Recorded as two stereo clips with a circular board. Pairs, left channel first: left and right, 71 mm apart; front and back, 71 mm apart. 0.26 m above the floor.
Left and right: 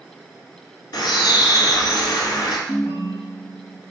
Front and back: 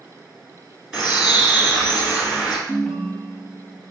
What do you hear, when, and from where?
0.9 s a bird: 100° left, 1.4 m
2.7 s a ringtone: 80° left, 0.6 m